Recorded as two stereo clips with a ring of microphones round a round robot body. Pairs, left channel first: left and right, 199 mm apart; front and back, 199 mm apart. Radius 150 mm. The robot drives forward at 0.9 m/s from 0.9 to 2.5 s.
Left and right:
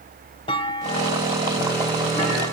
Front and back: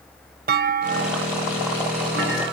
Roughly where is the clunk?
Behind.